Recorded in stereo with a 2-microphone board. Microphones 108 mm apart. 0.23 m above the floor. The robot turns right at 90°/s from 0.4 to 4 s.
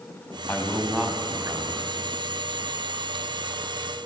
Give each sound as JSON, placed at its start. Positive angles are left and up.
{"t": 0.5, "sound": "a man speaking", "azimuth_deg": 150, "distance_m": 1.3}